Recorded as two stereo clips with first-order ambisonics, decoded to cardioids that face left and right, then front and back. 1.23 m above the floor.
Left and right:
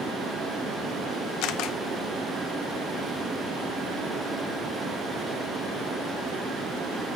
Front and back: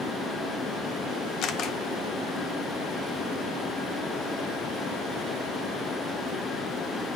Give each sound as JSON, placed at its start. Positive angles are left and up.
{"t": 1.4, "sound": "a camera shutter", "azimuth_deg": 55, "distance_m": 0.6}